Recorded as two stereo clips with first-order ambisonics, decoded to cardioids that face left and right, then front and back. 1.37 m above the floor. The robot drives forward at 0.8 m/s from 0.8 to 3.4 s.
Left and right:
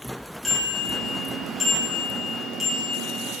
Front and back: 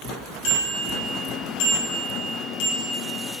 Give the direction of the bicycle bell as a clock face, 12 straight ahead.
12 o'clock.